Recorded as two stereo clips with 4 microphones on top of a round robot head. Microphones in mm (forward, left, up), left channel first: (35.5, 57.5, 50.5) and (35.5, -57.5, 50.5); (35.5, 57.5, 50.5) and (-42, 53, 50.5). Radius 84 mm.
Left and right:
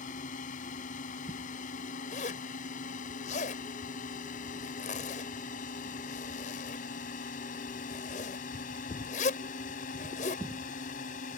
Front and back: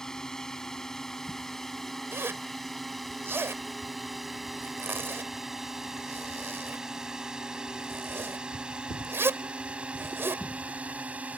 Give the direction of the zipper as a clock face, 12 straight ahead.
8 o'clock.